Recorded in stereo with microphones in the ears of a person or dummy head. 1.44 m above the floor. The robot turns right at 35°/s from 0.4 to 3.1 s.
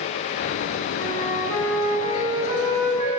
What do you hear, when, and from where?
1.0 s a flute: 155° left, 5.5 m; by 3.2 s 130° right, 5.5 m